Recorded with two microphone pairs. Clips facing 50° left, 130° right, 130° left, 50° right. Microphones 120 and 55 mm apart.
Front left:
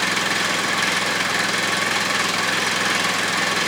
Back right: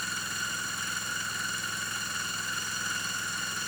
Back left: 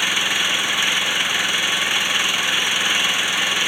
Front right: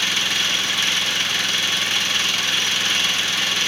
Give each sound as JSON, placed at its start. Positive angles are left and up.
{"t": 0.0, "sound": "an engine running", "azimuth_deg": 55}